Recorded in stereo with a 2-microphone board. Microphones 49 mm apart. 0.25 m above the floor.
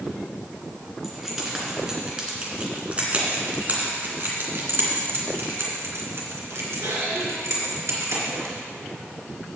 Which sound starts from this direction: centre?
Keys jangling, at 1.0 s.